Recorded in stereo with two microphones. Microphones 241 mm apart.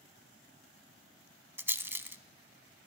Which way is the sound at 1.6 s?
10° right (ahead or behind).